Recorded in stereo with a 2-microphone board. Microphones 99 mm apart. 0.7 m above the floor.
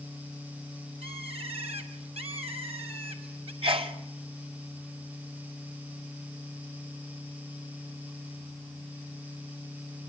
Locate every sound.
1.0 s a bird: 85° right, 3 m
3.6 s a sneeze: 65° right (ahead or behind), 2 m